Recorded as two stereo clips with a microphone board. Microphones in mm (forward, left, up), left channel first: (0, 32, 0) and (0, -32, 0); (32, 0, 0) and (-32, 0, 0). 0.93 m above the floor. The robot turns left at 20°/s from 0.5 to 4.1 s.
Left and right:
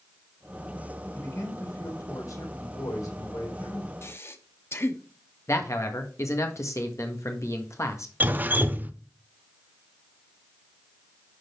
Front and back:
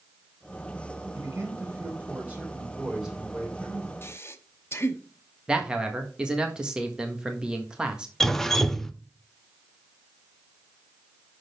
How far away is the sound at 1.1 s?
About 3 m.